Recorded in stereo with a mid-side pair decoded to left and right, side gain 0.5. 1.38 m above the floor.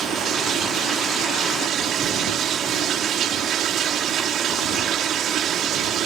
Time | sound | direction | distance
0.0 | running water | 60° right | ?